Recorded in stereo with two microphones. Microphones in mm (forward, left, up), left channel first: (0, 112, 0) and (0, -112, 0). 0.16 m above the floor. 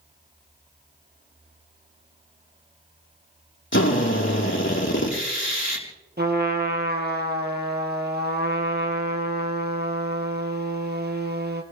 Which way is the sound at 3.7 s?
55° left (ahead or behind).